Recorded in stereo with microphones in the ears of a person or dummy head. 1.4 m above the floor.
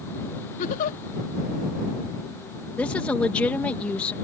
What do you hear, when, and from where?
0.6 s a giggle: 50° left (ahead or behind)
2.8 s a woman speaking: 10° left (ahead or behind)